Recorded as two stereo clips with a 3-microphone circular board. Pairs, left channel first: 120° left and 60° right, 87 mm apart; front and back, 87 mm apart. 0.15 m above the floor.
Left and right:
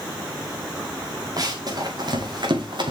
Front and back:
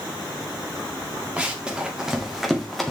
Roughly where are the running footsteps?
Right.